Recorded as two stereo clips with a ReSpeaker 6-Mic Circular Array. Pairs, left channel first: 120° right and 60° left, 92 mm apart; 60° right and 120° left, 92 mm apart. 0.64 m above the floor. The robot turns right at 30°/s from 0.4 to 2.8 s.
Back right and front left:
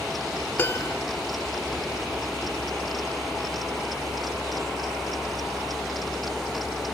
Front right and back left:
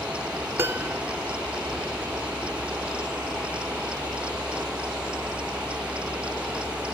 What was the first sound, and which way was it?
A piano, 175° left.